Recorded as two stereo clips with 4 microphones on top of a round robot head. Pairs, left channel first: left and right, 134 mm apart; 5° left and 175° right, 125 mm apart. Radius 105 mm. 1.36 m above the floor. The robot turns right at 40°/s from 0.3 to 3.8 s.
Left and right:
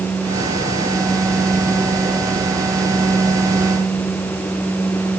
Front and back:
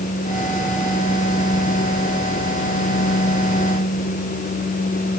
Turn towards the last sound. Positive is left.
No sound to turn to.